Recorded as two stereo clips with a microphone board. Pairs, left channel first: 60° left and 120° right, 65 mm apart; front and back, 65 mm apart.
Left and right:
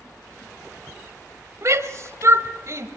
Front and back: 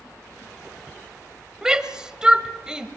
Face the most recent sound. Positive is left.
turn(degrees=-105)